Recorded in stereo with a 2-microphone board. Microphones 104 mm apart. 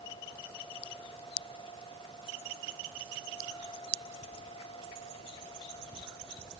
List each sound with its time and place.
Only background noise.